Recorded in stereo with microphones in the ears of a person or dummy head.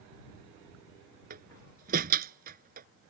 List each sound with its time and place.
1.3 s a door slam: 50° right (ahead or behind)